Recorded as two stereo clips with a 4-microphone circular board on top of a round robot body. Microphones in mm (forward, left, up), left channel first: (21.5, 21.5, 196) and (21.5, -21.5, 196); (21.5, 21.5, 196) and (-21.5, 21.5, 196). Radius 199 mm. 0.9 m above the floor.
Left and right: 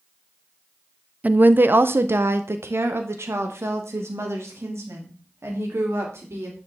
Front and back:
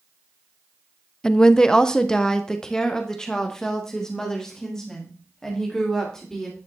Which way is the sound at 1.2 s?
65° right.